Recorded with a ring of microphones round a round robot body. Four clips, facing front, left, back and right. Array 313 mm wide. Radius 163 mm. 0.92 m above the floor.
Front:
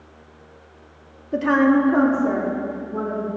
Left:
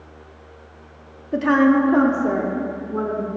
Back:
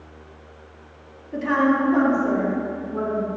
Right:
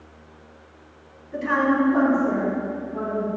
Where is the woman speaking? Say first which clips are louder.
Left 5 dB, front 3 dB; 55° left, 1.7 m; by 3.3 s 95° left, 3 m.